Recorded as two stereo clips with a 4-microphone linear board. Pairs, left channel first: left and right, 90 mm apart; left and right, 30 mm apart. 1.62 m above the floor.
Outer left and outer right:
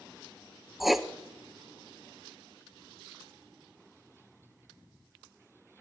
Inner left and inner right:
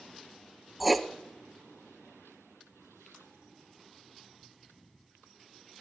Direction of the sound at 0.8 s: Centre (ahead or behind).